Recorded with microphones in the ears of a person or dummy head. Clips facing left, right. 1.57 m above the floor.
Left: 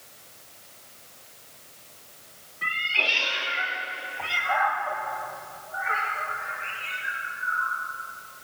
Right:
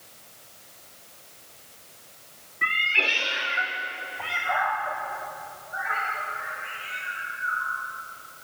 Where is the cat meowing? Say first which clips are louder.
Right 2 dB; 35° right (ahead or behind), 2.5 m; by 7.7 s 15° right (ahead or behind), 8.5 m.